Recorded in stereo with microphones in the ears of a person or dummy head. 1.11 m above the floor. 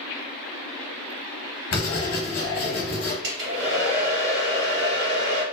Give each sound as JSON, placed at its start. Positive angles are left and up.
{"t": 1.7, "sound": "writing", "side_deg": 45, "distance_m": 0.9}
{"t": 3.2, "sound": "a hair dryer", "side_deg": -65, "distance_m": 1.6}